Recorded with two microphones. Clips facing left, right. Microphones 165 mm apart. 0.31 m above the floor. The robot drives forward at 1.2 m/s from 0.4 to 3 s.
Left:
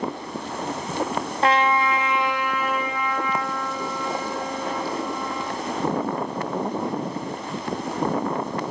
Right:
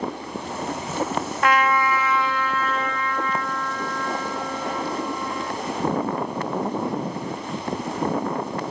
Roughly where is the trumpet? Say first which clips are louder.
Left 1 dB; left.